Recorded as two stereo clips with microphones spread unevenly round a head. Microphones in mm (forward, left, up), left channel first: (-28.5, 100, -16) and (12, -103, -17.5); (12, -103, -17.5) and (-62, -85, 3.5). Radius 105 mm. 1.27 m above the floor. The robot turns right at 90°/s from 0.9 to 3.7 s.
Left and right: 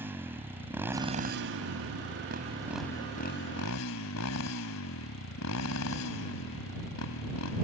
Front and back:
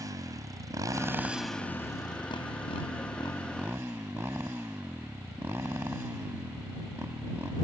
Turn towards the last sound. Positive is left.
turn(degrees=95)